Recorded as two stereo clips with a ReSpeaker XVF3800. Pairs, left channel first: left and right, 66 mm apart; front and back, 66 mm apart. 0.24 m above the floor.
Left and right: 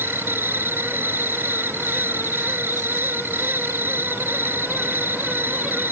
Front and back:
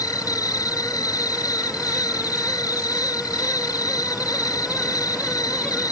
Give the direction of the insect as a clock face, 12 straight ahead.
1 o'clock.